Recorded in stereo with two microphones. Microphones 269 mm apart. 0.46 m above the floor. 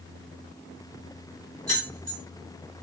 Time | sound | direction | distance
1.7 | keys jangling | 60° right (ahead or behind) | 2 m